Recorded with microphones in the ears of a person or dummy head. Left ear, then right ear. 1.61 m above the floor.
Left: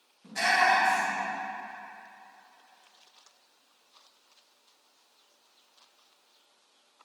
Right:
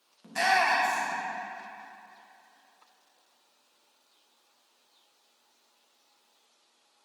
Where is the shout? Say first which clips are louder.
Left 1 dB; 30° right (ahead or behind), 1.0 m.